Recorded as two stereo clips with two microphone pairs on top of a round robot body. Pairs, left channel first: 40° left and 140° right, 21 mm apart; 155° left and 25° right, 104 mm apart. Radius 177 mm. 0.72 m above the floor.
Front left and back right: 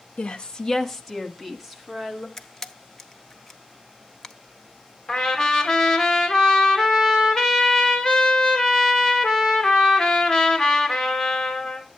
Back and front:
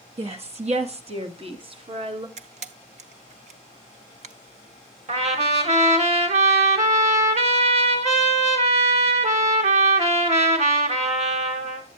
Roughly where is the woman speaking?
Ahead.